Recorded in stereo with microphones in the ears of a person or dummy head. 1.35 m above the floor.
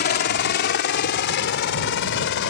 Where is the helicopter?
45° left (ahead or behind); by 2.5 s 55° left (ahead or behind).